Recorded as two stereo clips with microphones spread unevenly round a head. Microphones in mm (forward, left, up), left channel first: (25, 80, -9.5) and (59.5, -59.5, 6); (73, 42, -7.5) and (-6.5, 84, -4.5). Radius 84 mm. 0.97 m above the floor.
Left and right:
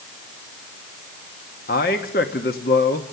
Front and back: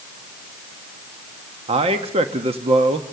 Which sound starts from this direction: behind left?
A man speaking, at 1.7 s.